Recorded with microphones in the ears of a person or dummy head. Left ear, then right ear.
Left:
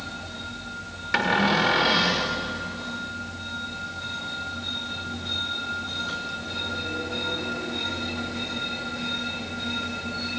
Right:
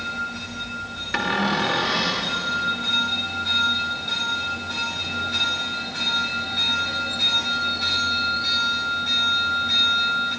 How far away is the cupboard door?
About 1.8 m.